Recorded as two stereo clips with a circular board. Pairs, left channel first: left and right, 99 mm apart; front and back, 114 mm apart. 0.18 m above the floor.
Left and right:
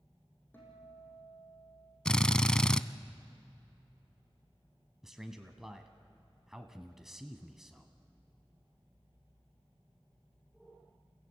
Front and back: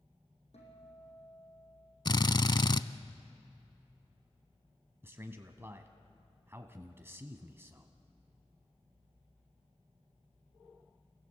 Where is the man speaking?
170° right, 1.0 m.